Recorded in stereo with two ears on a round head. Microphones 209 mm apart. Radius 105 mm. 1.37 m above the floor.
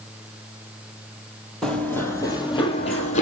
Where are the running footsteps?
Centre (ahead or behind), 2.5 m; by 3.2 s 30° left (ahead or behind), 3 m.